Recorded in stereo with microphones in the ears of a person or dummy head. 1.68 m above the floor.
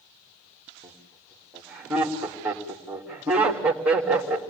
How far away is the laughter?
About 3.5 m.